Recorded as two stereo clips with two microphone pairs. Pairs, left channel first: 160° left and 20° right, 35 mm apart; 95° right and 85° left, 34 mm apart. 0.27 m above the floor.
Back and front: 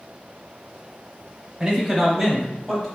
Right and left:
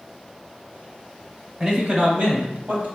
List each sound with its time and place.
1.6 s a man speaking: 25° left, 1.1 m; by 2.9 s 80° left, 1.2 m